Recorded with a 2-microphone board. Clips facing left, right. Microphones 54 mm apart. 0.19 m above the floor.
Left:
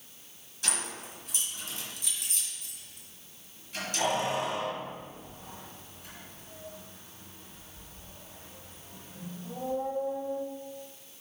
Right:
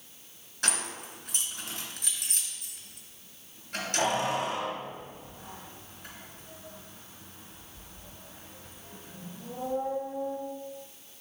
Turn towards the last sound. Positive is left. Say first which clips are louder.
# right 3 dB
turn(degrees=-60)  # may be behind; listen again after turning